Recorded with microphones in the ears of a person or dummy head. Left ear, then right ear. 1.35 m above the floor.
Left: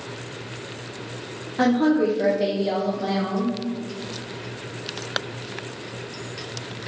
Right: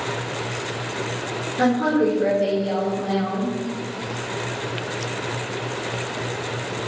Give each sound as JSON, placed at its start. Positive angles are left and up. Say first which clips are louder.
{"t": 1.6, "sound": "a woman speaking", "louder": "even", "side_deg": 30, "distance_m": 0.6}